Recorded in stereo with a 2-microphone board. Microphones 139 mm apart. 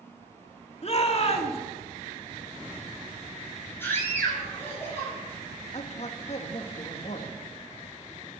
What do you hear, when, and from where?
0.8 s a shout: 50° left (ahead or behind), 2.5 m
3.8 s a scream: 15° left (ahead or behind), 8.5 m
5.7 s a man speaking: 55° left (ahead or behind), 2 m